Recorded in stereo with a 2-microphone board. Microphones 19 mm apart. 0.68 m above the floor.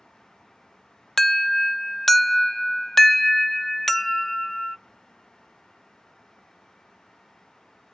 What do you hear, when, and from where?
1.2 s an alarm: 15° left (ahead or behind), 0.6 m